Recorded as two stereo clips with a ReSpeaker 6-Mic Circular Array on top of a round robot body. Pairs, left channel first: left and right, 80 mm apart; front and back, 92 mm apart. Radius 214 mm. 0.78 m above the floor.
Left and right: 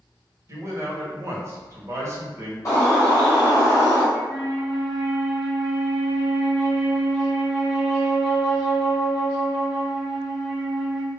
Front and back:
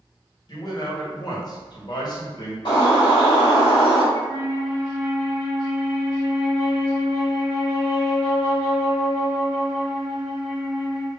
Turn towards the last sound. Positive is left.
turn(degrees=-135)